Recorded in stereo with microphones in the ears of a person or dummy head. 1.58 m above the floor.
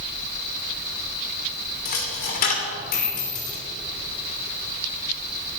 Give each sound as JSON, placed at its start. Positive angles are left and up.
{"t": 1.9, "sound": "a dropped coin", "side_deg": 45, "distance_m": 3.0}